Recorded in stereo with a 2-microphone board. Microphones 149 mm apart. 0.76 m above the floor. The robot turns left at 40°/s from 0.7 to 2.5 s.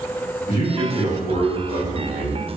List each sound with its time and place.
0.5 s a man speaking: 135° left, 1.3 m; by 2.6 s 65° left, 1.3 m